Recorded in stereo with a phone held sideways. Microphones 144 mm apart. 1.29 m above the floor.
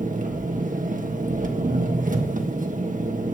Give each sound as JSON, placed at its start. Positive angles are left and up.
{"t": 0.0, "sound": "an engine running", "side_deg": -60, "distance_m": 1.4}